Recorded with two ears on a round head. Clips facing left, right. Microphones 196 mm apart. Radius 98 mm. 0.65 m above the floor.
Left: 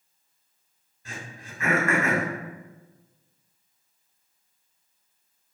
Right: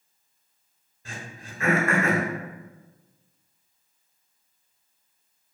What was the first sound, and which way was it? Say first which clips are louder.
Throat clearing: right 1 dB; 30° right (ahead or behind).